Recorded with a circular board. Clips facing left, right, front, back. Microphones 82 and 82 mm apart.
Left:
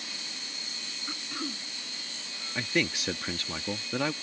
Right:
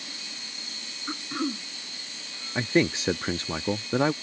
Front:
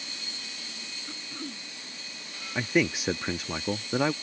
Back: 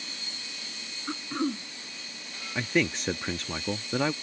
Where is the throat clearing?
150° right.